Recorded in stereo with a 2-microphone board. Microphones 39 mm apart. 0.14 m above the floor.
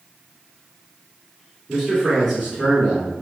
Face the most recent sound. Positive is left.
turn(degrees=10)  # may be behind; listen again after turning